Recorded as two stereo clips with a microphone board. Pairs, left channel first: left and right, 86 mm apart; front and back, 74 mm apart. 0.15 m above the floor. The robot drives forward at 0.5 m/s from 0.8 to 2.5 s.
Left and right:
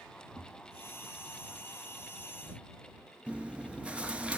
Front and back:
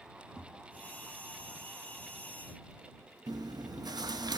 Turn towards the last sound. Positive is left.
turn(degrees=-165)